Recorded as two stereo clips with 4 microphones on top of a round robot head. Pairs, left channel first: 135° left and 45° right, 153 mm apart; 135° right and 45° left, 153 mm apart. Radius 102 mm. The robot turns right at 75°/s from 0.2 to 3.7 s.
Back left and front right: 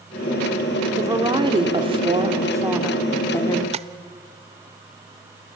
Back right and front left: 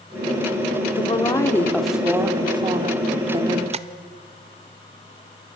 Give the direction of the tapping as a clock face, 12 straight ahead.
12 o'clock.